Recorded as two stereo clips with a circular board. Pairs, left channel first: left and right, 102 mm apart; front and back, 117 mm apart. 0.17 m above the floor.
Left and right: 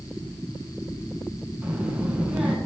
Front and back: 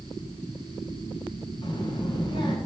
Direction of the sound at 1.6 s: 20° right.